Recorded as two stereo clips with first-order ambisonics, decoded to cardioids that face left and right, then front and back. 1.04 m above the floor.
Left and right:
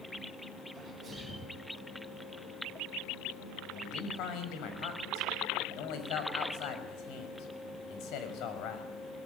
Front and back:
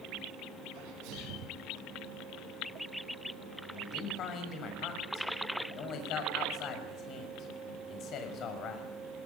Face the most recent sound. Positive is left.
turn(degrees=50)